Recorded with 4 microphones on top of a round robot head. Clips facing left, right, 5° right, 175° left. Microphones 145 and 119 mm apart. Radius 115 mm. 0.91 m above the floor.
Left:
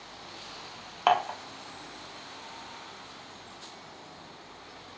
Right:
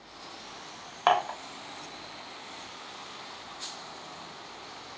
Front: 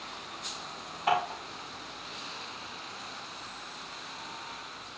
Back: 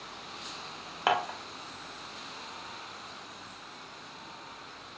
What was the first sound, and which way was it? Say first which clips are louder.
Dishes clattering: even, even; 170° left.